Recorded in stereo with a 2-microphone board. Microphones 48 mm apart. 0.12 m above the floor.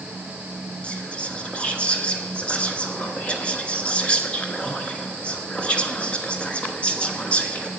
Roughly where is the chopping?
No chopping in this recording.